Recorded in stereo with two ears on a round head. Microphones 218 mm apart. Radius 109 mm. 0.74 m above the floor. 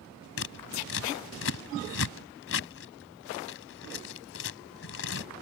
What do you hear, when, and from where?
0.4 s scissors: 55° left (ahead or behind)